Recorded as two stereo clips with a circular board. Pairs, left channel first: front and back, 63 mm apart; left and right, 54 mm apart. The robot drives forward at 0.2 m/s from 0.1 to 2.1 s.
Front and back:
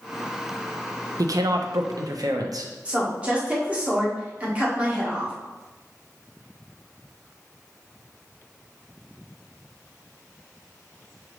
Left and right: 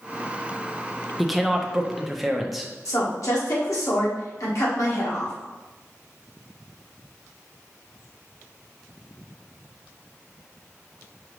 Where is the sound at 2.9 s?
110° left, 1.5 m.